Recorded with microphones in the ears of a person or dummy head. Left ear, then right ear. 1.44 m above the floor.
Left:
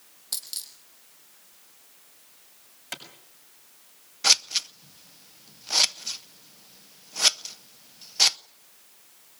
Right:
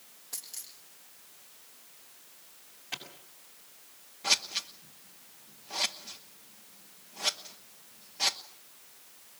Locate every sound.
0.3 s a dropped coin: 70° left (ahead or behind), 3.5 m
2.9 s a clap: 60° left (ahead or behind), 6.5 m
4.2 s scissors: 50° left (ahead or behind), 0.7 m